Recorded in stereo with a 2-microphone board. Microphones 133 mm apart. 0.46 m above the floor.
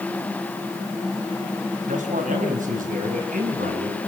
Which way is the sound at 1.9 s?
70° right (ahead or behind).